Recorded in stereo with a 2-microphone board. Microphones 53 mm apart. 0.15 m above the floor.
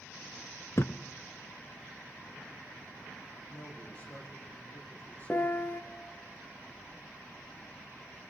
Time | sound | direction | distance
0.8 | a thud | 55° left (ahead or behind) | 0.6 m
3.5 | a man speaking | 30° left (ahead or behind) | 7 m
5.3 | a piano | 35° left (ahead or behind) | 0.6 m